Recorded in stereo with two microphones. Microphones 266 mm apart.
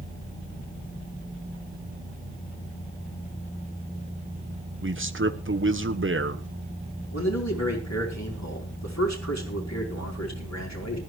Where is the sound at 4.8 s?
50° right (ahead or behind), 1.1 m.